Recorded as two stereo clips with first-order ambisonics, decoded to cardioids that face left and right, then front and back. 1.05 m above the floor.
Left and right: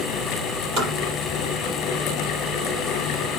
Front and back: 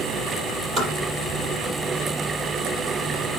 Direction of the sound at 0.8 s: 100° right.